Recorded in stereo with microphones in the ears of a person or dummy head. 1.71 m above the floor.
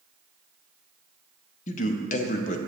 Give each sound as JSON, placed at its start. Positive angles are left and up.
{"t": 1.7, "sound": "a man speaking", "side_deg": 45, "distance_m": 0.8}